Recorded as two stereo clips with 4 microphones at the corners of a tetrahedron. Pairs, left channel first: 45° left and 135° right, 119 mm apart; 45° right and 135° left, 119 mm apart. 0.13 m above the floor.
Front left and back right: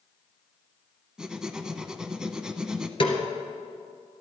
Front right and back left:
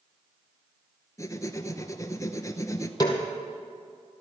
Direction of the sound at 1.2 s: 60° right.